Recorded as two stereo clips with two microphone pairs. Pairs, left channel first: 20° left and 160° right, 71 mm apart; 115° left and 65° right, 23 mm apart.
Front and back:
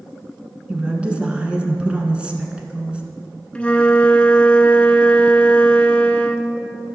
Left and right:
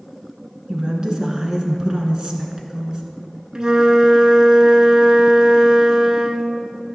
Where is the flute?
40° right, 0.6 m.